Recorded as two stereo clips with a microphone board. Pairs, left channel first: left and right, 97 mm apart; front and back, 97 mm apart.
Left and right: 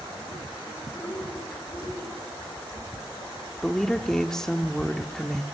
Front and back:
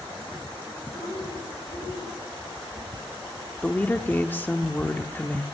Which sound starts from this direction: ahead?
A woman speaking, at 3.6 s.